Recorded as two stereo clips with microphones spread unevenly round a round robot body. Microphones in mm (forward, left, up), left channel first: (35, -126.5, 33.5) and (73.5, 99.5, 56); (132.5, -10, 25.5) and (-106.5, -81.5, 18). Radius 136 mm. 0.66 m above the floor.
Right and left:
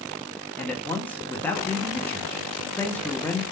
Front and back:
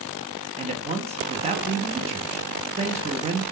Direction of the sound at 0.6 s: 160° right.